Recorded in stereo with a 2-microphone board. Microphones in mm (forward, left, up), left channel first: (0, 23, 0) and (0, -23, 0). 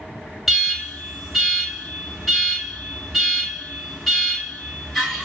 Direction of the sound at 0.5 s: 5° right (ahead or behind).